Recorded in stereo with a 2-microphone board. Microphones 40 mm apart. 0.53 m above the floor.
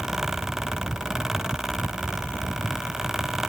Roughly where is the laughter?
No laughter in this recording.